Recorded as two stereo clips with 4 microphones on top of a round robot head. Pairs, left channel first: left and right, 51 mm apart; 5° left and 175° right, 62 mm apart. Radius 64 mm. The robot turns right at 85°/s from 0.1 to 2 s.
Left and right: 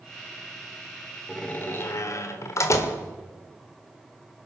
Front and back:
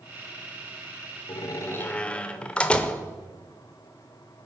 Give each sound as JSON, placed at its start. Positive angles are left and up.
{"t": 1.3, "sound": "a door slam", "azimuth_deg": 15, "distance_m": 1.2}